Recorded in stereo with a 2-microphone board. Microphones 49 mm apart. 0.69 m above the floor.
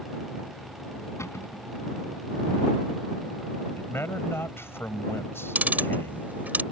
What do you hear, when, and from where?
1.2 s a cupboard door: 80° left
3.8 s a man speaking: 55° left (ahead or behind)
5.5 s ticking: 35° right (ahead or behind)